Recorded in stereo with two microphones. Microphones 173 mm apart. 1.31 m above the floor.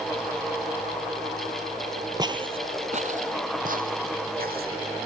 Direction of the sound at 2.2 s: 25° right (ahead or behind).